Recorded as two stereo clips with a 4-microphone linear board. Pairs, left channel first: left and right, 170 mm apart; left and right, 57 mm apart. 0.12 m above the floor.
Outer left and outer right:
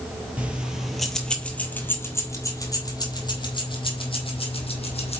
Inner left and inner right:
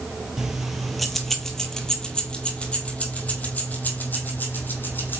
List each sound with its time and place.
0.4 s keys jangling: 10° right (ahead or behind), 2.0 m; by 5.2 s 35° left (ahead or behind), 3.5 m